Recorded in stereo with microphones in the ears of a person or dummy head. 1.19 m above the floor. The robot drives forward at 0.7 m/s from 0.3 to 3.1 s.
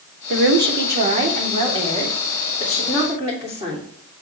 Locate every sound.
0.3 s a woman speaking: 55° right (ahead or behind), 1.1 m; by 3.9 s 20° right (ahead or behind), 2.5 m